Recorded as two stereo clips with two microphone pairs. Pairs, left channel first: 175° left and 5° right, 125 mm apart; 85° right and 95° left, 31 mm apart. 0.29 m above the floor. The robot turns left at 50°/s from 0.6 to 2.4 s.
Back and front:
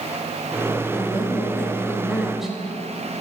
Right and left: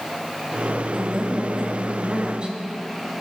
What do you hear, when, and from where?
0.9 s a woman speaking: 155° left, 1.0 m; by 2.6 s 85° left, 1.0 m